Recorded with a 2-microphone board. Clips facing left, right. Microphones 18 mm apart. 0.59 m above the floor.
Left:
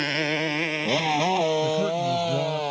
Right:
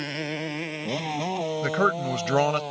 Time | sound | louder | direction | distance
0.0 | a motorcycle | left 6 dB | 20° left (ahead or behind) | ?
1.6 | a man speaking | even | 65° right (ahead or behind) | ?